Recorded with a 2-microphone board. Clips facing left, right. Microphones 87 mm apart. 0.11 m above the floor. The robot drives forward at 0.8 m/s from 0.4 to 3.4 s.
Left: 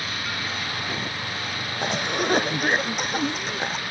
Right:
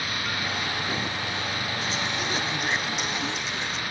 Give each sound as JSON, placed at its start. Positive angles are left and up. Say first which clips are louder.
{"t": 1.8, "sound": "a cough", "louder": "left 9 dB", "side_deg": 55}